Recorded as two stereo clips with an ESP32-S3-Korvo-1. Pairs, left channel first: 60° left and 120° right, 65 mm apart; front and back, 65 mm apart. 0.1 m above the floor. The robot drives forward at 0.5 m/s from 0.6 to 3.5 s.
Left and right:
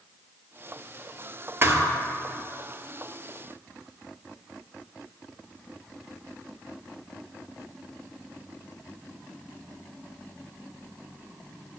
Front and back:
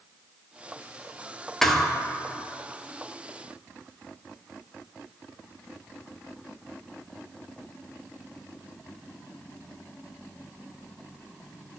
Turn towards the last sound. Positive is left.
turn(degrees=-140)